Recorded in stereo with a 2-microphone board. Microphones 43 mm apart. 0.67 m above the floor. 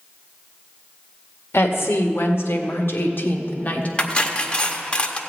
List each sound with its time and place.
1.5 s a woman speaking: 75° left (ahead or behind), 1.8 m; by 3.9 s 35° left (ahead or behind), 1.4 m
4.0 s cutlery clinking: 25° left (ahead or behind), 0.9 m